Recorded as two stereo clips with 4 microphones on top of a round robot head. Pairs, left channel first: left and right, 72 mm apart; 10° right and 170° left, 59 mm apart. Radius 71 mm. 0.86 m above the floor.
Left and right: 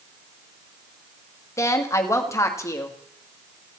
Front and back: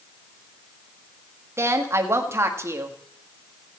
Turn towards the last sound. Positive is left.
turn(degrees=135)